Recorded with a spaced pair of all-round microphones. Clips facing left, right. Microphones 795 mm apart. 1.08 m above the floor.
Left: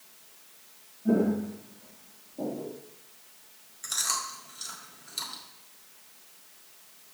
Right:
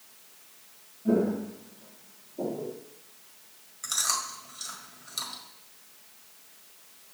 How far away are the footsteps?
About 1.9 m.